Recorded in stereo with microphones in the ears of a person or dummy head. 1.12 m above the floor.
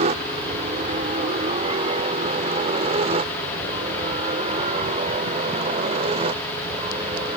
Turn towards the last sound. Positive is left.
turn(degrees=-35)  # may be behind; listen again after turning